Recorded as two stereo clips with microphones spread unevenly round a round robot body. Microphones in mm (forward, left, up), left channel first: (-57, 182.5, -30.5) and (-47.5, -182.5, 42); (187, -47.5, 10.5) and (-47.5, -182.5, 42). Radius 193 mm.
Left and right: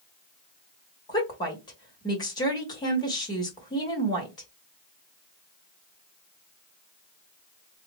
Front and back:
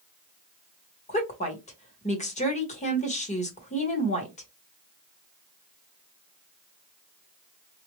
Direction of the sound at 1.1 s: 45° left.